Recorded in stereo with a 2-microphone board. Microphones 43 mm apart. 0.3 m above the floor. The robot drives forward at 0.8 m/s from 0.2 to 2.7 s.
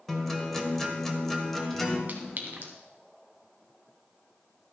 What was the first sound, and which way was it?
A guitar, 10° left (ahead or behind).